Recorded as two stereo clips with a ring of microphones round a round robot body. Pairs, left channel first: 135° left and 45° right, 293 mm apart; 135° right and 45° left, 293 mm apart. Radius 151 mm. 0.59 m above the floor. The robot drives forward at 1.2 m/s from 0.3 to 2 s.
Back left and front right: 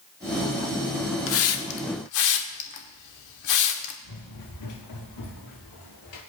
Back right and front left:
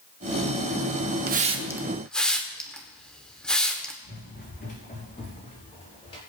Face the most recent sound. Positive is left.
turn(degrees=150)